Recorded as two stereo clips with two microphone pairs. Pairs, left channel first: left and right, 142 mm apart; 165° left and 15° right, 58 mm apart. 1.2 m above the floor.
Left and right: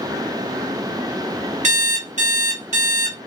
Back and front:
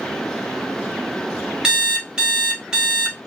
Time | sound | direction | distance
1.6 | an alarm clock | 85° right | 1.1 m